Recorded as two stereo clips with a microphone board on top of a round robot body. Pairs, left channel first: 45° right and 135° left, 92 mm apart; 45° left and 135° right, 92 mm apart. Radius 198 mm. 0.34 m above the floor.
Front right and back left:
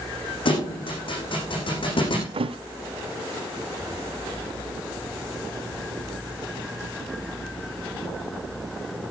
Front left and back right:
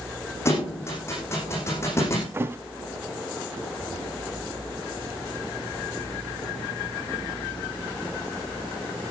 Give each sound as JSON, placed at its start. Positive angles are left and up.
{"t": 0.5, "sound": "a thud", "azimuth_deg": -15, "distance_m": 9.0}
{"t": 2.3, "sound": "a thud", "azimuth_deg": 160, "distance_m": 1.0}